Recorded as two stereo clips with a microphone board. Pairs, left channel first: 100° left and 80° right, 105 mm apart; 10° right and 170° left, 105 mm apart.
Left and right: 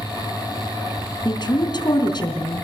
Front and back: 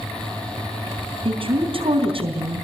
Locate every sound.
1.2 s a woman speaking: 145° left, 4 m